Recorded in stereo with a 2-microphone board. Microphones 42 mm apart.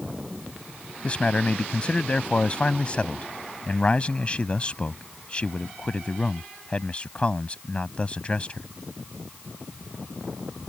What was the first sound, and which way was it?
A man speaking, 25° left (ahead or behind).